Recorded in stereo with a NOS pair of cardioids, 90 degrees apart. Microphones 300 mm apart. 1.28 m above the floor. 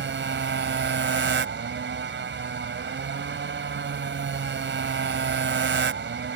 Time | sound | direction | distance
0.0 | a motorcycle | 40° right | ?